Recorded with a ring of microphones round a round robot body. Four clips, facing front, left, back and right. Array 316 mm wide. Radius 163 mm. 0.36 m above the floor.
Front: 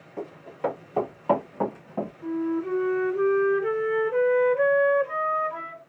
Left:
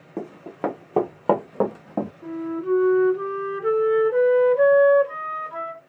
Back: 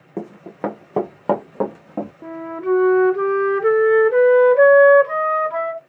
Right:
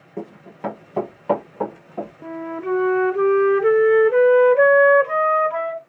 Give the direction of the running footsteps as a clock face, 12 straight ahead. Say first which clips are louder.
Left 2 dB, back 4 dB; 7 o'clock.